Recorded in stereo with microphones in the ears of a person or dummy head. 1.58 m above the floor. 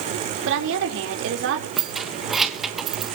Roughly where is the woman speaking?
Right.